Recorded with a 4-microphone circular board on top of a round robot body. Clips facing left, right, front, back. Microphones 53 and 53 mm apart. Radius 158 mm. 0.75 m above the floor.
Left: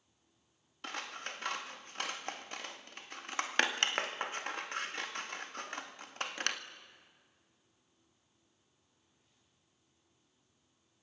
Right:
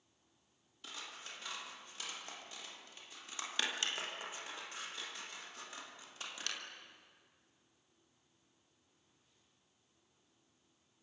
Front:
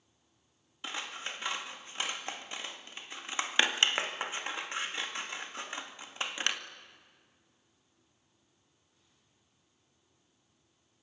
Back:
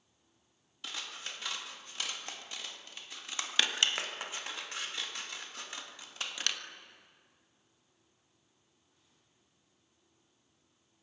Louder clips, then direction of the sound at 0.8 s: Left 8 dB, front 4 dB; 60° left.